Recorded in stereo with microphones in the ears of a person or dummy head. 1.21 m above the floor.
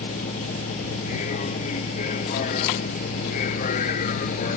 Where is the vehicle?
40° left (ahead or behind).